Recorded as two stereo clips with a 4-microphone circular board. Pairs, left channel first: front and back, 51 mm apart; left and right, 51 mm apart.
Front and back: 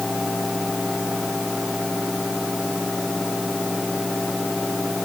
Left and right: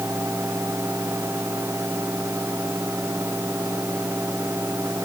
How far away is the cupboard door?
No cupboard door in this recording.